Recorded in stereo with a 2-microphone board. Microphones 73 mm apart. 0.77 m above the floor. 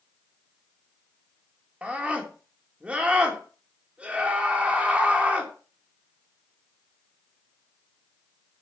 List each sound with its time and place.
1.8 s a scream: 15° right (ahead or behind), 2.5 m